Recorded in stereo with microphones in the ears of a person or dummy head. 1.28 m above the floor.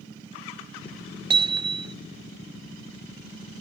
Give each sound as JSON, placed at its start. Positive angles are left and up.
{"t": 1.3, "sound": "hammering", "side_deg": -30}